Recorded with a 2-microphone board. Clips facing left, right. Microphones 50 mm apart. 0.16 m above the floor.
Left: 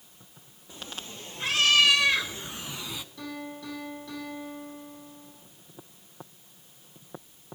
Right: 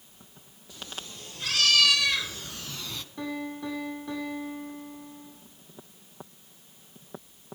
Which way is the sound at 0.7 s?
30° left (ahead or behind).